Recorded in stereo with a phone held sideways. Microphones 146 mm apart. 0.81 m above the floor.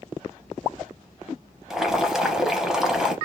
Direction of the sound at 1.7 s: 5° right (ahead or behind).